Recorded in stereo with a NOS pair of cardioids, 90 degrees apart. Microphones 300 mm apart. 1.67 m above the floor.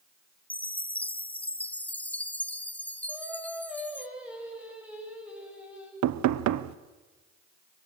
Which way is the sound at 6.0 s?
70° right.